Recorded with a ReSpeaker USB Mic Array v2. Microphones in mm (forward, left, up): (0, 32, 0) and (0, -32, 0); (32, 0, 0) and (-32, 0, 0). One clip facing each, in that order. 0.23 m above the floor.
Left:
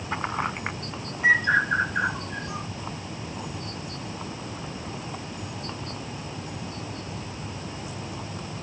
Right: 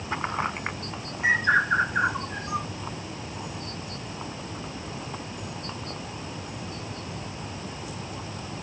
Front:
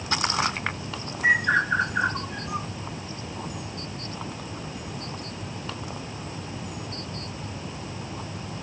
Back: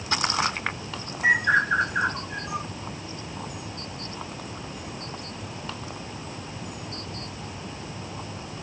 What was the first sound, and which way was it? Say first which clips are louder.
A bird: left 1 dB, back 1 dB; 135° right.